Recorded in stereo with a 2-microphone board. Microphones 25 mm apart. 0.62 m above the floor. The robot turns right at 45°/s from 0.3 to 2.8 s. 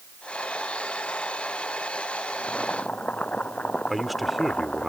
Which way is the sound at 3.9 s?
Centre (ahead or behind).